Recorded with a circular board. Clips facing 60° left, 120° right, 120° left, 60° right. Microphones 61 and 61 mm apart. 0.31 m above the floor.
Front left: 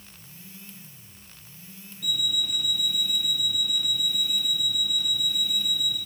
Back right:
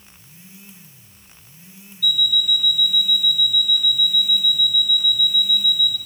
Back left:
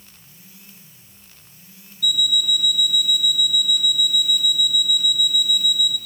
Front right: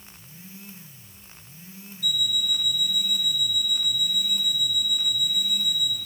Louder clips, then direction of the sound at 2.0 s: Back right 8 dB, back left 5 dB; 130° left.